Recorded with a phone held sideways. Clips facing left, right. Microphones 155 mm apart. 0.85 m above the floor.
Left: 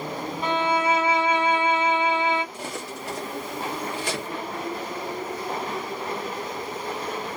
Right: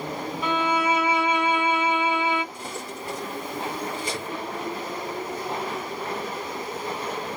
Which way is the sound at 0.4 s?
40° left (ahead or behind).